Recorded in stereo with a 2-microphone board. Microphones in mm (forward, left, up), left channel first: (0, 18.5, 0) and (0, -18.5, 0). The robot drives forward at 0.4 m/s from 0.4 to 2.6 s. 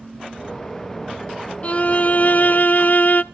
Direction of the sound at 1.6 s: 40° left (ahead or behind).